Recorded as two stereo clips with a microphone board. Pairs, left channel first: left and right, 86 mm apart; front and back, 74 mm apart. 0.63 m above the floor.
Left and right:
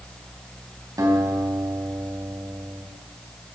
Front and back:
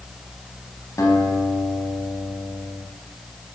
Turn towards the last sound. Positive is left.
turn(degrees=-45)